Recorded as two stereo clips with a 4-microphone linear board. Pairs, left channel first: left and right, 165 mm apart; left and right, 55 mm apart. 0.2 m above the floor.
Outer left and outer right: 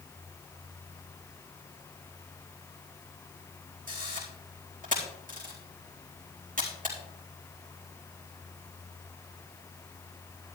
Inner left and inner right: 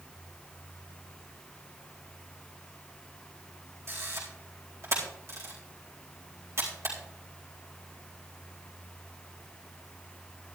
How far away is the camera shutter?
About 4 m.